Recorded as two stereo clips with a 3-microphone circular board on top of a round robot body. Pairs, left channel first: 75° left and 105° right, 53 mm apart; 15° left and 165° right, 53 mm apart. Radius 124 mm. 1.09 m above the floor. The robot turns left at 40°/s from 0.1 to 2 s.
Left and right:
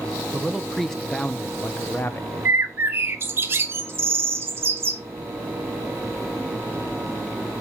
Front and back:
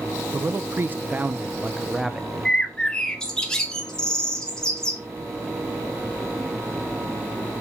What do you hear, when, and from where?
0.3 s a man speaking: straight behind, 1.1 m; by 2.3 s 115° left, 1.1 m
2.5 s a bird: 60° right, 0.9 m